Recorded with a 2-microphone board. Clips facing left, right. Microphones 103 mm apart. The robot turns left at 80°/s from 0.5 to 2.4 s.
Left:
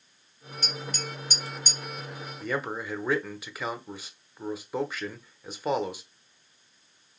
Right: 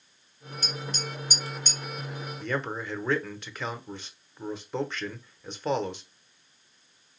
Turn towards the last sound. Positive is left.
turn(degrees=5)  # may be behind; listen again after turning